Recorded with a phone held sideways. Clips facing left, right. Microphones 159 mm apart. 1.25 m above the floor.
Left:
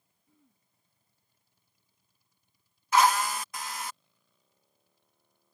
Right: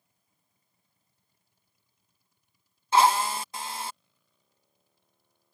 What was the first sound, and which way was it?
Throat clearing, 80° left.